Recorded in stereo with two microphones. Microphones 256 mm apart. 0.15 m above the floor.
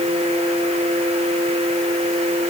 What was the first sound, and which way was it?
Only background noise.